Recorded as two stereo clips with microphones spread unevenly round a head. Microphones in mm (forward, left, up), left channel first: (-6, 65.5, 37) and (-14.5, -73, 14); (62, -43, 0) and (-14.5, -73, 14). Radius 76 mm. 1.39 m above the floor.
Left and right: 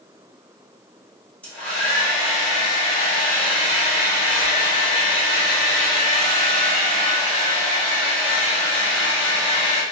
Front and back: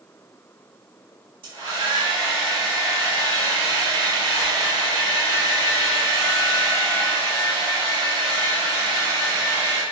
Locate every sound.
1.4 s a hair dryer: 170° left, 1.5 m